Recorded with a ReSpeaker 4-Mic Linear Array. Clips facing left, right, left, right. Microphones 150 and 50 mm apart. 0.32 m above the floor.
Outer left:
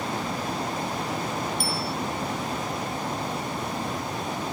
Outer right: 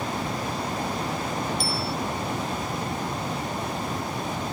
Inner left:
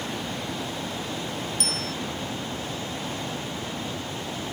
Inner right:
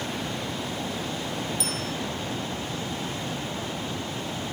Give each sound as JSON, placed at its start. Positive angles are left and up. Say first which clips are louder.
{"t": 1.6, "sound": "a bicycle bell", "louder": "outer right 1 dB, even", "side_deg": 55}